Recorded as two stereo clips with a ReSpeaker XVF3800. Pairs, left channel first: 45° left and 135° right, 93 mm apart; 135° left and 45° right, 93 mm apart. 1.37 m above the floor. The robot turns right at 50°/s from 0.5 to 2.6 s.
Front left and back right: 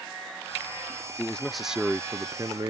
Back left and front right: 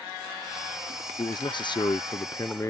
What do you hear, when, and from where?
1.2 s a man speaking: 115° left; by 2.7 s 175° right